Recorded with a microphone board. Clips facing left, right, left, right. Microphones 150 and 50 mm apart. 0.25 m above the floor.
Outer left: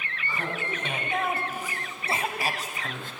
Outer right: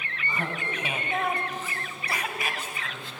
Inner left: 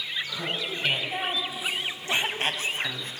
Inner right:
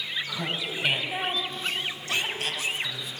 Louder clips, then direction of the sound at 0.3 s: Even, even; 20° right (ahead or behind).